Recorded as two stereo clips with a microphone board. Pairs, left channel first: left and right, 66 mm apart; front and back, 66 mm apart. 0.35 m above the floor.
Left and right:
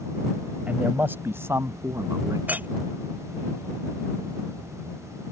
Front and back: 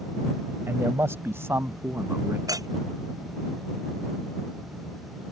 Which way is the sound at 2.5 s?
155° right.